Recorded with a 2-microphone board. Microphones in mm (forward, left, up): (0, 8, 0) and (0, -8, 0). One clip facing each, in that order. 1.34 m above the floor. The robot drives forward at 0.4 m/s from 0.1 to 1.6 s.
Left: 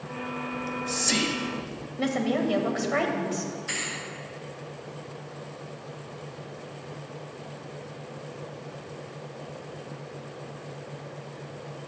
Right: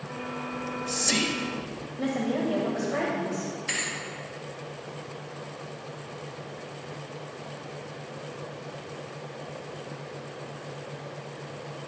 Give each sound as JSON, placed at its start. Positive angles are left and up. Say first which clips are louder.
{"t": 0.5, "sound": "whispering", "louder": "even", "side_deg": 0, "distance_m": 0.9}
{"t": 2.0, "sound": "a woman speaking", "louder": "left 2 dB", "side_deg": 40, "distance_m": 1.7}
{"t": 3.7, "sound": "a thud", "louder": "right 2 dB", "side_deg": -20, "distance_m": 2.5}